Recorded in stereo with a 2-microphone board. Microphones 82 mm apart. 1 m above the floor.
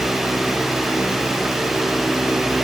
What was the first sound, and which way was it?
Only background noise.